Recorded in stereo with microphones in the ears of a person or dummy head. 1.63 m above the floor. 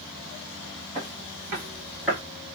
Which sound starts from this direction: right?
Footsteps, at 0.9 s.